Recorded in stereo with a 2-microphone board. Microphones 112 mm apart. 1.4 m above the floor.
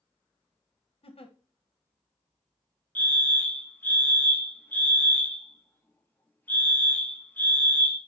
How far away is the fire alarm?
About 1.1 m.